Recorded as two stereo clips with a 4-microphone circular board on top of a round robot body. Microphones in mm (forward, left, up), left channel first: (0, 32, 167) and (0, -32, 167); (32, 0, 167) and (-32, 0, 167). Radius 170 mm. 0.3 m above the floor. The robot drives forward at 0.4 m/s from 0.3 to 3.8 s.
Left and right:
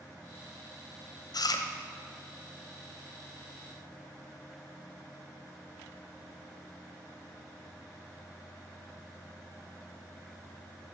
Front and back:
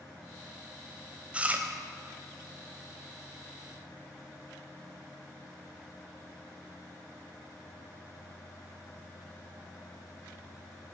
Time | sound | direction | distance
1.3 | chewing | 105° left | 0.8 m